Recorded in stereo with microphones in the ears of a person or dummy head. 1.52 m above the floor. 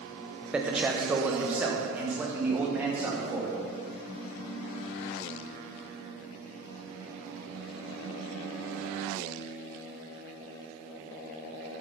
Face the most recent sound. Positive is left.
turn(degrees=-10)  # may be behind; listen again after turning